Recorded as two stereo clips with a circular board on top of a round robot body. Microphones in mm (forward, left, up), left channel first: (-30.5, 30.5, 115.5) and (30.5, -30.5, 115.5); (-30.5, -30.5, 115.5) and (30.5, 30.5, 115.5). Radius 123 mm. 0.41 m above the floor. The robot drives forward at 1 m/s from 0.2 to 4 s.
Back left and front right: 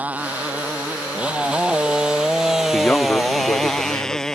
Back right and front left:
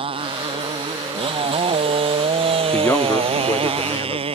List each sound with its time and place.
0.0 s a motorcycle: 30° left; by 4.3 s 50° left
2.7 s a man speaking: 160° right; by 4.2 s 175° right